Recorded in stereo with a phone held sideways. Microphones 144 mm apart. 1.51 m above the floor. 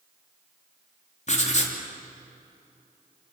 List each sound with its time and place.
1.3 s writing: 55° left (ahead or behind), 3 m